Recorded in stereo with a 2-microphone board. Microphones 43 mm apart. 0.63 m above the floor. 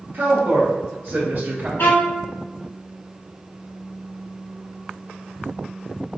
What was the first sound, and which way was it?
A woman speaking, 65° right (ahead or behind).